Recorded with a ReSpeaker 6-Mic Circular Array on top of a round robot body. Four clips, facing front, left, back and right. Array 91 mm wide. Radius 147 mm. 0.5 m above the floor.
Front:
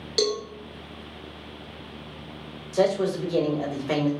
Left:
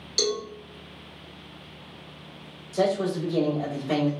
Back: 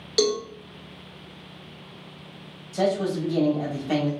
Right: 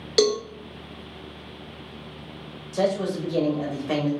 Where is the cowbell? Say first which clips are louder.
Right 7 dB, back 3 dB; 95° right, 0.6 m.